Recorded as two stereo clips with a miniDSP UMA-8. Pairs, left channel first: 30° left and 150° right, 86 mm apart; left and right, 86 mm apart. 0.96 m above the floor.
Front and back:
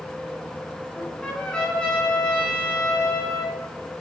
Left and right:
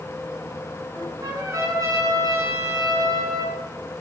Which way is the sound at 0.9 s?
50° right.